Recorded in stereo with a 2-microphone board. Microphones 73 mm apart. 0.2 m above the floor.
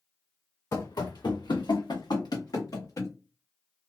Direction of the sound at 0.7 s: 50° left (ahead or behind).